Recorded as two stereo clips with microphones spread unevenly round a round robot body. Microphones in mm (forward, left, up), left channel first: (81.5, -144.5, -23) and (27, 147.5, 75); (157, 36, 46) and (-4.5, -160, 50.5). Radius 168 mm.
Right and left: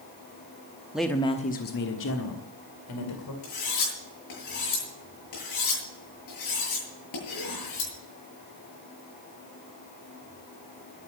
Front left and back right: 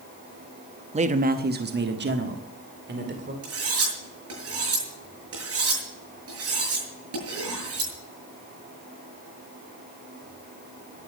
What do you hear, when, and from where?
0.9 s a man speaking: 130° right, 0.7 m; by 3.3 s 85° right, 2.5 m
3.4 s cutlery clinking: 105° right, 7.5 m